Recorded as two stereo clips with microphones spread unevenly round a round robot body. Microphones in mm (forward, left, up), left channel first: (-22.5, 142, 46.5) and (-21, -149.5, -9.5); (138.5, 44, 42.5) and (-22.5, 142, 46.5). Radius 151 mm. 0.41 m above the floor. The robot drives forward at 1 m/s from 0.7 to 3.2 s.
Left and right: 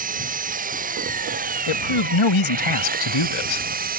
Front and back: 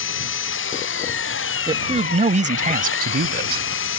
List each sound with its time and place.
0.0 s an engine running: 25° right
1.7 s a man speaking: 85° left; by 3.7 s 115° left